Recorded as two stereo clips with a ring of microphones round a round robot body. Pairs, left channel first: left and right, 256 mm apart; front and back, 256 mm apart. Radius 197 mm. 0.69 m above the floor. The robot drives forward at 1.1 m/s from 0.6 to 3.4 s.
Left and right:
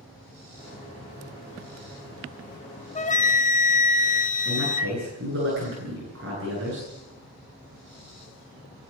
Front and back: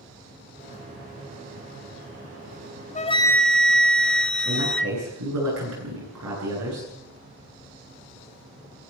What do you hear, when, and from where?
3.0 s a flute: 45° left, 1.2 m; by 5.0 s 85° left, 1.1 m
4.5 s a man speaking: 145° right, 9.5 m